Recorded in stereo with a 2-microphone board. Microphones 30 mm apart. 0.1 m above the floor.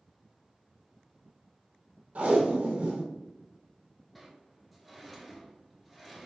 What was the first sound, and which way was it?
Tape being pulled, 55° right (ahead or behind).